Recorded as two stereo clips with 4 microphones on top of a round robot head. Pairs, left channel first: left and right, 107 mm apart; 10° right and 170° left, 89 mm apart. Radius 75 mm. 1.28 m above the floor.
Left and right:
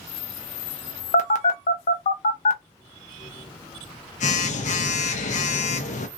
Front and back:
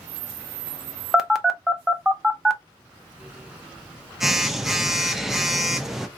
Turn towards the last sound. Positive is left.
turn(degrees=80)